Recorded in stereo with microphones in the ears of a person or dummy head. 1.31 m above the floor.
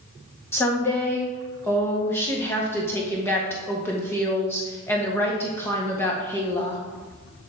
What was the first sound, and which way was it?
A woman speaking, 15° left (ahead or behind).